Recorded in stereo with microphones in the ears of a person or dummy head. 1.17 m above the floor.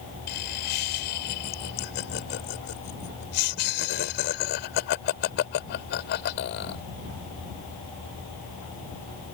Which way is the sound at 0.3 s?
50° left (ahead or behind).